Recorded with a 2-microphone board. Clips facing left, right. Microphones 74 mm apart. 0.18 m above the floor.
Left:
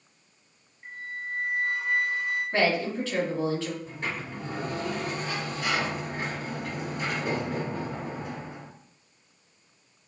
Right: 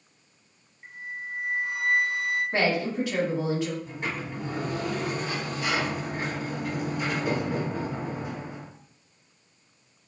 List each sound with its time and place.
0.8 s a flute: 10° right (ahead or behind), 1.2 m
2.5 s a woman speaking: 15° right (ahead or behind), 1.0 m
3.9 s a sliding door: 10° right (ahead or behind), 1.6 m